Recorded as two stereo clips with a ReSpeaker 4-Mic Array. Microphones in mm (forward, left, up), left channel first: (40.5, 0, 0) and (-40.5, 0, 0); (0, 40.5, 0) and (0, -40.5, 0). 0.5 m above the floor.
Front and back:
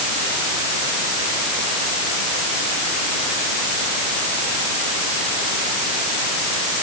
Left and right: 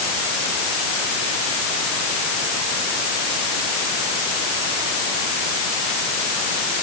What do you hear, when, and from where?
Only background noise.